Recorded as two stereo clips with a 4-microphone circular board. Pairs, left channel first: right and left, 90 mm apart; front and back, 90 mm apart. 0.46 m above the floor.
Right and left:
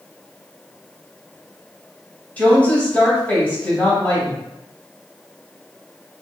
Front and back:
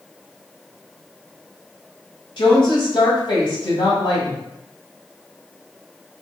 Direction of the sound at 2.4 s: 20° right.